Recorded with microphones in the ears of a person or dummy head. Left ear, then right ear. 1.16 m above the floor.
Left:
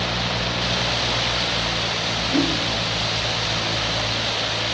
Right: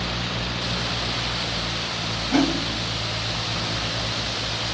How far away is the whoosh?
About 2 m.